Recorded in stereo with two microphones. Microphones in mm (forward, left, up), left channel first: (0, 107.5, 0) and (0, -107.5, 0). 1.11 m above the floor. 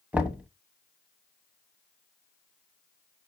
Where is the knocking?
5° right (ahead or behind), 0.9 m.